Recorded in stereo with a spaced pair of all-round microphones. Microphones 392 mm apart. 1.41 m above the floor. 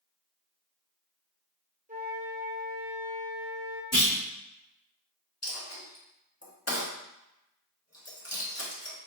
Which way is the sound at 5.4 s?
40° left (ahead or behind).